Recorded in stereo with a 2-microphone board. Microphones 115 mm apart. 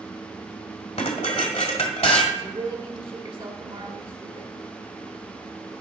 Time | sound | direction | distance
1.0 | dishes clattering | 70° left (ahead or behind) | 1.6 m
2.3 | a woman speaking | 45° right (ahead or behind) | 1.3 m